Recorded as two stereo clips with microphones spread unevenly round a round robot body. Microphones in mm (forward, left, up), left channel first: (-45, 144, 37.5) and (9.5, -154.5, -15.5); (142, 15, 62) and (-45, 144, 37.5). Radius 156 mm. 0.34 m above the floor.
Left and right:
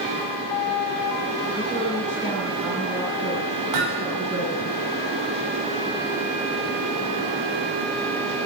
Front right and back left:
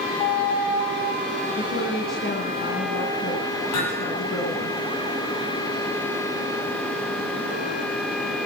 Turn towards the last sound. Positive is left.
turn(degrees=-55)